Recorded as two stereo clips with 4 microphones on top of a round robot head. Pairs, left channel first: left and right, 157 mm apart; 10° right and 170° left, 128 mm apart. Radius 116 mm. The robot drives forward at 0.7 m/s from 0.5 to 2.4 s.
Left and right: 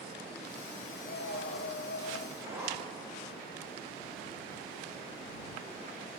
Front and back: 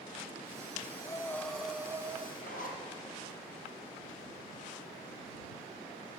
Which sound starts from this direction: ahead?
A zipper, at 2.4 s.